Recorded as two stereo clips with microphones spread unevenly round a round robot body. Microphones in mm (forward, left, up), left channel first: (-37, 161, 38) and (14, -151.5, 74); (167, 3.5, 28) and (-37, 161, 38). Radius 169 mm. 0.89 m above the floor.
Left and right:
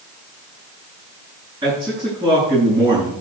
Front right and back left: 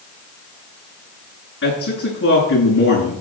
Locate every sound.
1.6 s a man speaking: 5° right, 8.5 m